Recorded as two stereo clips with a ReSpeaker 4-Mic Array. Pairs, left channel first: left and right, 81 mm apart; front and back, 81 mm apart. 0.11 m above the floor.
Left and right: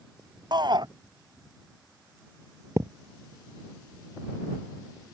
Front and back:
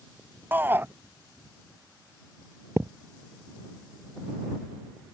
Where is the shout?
115° right.